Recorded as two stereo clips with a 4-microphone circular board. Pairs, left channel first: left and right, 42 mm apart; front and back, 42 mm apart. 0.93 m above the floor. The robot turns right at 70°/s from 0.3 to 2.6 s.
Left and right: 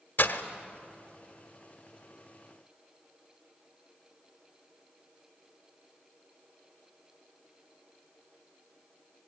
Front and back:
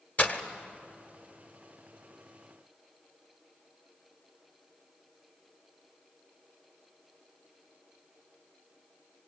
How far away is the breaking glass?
About 1.3 m.